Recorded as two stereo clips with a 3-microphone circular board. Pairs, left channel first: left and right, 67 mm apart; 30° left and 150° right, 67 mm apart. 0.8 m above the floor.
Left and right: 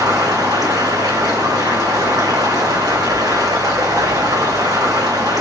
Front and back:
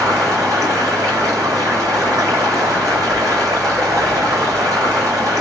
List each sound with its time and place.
0.0 s running water: 110° right, 2.5 m